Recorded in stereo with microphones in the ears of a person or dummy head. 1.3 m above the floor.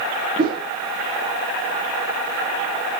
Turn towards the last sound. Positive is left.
turn(degrees=-35)  # may be behind; listen again after turning